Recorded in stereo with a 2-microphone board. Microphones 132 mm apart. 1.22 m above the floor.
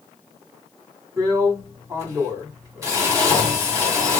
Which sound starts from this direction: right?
A drill, at 1.2 s.